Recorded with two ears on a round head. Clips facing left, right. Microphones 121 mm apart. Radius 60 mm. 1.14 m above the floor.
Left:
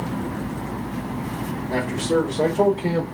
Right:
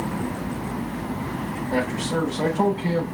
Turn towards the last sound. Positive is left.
turn(degrees=45)  # may be behind; listen again after turning